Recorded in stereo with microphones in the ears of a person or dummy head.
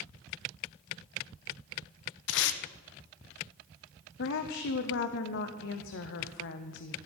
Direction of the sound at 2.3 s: 70° left (ahead or behind).